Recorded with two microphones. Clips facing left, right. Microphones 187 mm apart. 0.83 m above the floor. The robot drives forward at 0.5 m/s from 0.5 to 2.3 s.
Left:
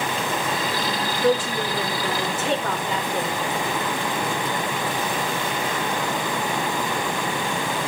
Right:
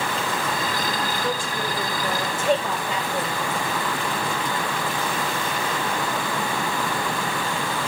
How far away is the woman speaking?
About 3.5 m.